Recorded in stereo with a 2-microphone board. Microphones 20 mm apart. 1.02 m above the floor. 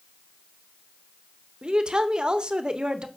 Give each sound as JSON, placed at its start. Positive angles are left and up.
{"t": 1.6, "sound": "a woman speaking", "side_deg": -45, "distance_m": 0.8}